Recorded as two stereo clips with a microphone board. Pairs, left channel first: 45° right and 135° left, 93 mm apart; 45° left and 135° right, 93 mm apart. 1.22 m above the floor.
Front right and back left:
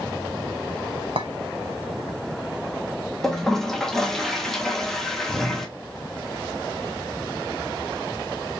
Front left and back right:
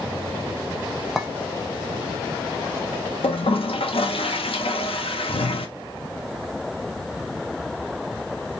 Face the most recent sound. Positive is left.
turn(degrees=40)